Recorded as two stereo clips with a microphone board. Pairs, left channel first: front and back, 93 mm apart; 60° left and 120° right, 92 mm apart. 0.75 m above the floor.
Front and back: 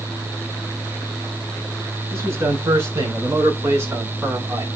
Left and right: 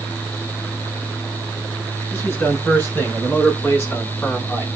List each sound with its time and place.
2.1 s a man speaking: 125° left, 9.5 m